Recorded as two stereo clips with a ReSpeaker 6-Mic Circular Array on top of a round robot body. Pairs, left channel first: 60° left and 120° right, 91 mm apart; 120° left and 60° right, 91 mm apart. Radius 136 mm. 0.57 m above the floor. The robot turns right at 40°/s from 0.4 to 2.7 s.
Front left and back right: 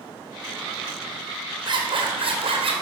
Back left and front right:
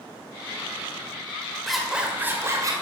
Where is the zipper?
150° right, 3 m; by 2.7 s 110° right, 3 m.